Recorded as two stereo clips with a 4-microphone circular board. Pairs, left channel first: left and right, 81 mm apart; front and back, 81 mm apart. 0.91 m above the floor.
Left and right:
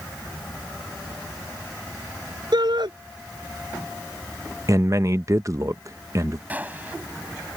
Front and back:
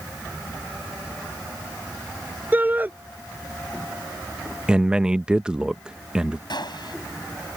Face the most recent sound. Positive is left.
turn(degrees=-20)